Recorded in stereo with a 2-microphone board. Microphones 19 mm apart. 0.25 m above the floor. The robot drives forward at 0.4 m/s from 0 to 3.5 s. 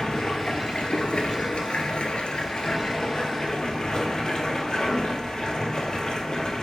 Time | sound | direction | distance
0.0 | running water | 45° left (ahead or behind) | 1.0 m